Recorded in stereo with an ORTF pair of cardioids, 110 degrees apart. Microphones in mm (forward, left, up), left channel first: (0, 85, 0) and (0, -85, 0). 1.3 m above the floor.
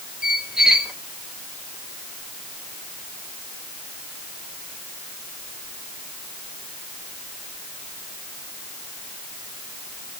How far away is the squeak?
About 2.5 m.